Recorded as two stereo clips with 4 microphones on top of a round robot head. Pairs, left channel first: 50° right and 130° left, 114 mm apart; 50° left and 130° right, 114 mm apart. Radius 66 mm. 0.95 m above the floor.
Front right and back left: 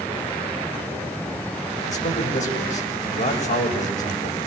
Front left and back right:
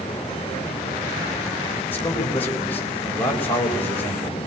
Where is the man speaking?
25° right, 7 m.